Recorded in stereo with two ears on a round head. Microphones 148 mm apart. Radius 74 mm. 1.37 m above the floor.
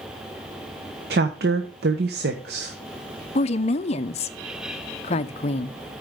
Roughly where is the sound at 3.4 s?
Left.